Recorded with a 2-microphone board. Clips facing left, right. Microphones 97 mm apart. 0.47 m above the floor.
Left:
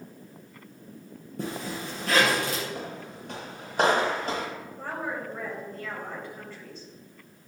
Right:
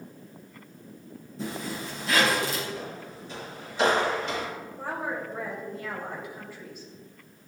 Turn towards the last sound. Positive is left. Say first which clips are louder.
# right 1 dB
turn(degrees=-10)  # may be behind; listen again after turning